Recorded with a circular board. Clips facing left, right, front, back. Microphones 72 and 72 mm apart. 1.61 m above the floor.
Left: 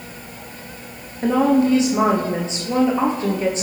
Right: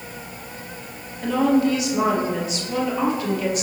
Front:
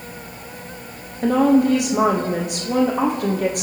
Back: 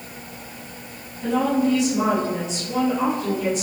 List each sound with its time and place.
1.2 s a woman speaking: 30° left, 0.8 m